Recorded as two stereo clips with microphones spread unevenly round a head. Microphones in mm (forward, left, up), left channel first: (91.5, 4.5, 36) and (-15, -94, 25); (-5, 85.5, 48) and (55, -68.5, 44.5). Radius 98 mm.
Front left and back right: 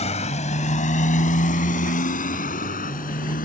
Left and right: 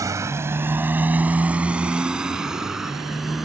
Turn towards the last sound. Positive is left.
turn(degrees=20)